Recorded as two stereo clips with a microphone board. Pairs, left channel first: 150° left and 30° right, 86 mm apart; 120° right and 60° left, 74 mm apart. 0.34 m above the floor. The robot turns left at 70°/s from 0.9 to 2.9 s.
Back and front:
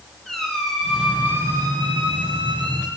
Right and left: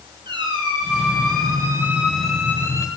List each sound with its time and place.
0.2 s a squeak: 60° left, 5 m; by 2.9 s 75° right, 5 m